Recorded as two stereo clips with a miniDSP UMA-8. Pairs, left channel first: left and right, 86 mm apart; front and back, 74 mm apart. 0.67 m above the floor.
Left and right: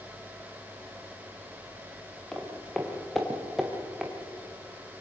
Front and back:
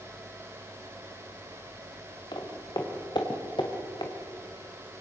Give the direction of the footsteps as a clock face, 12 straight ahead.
12 o'clock.